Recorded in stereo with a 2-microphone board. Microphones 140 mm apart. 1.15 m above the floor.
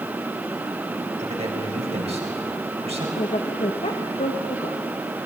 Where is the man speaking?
50° right (ahead or behind), 4.5 m.